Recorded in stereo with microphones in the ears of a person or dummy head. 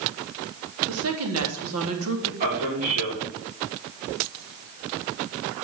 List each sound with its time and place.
0.9 s a woman speaking: 85° right, 3 m
2.4 s a man speaking: 45° right (ahead or behind), 5 m